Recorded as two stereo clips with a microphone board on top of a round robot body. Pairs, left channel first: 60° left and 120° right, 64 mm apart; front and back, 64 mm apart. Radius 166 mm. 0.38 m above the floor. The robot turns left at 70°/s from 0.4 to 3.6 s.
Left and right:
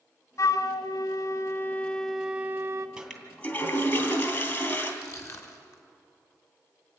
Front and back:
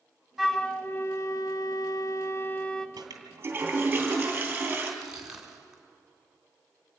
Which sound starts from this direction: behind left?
A toilet flushing, at 3.0 s.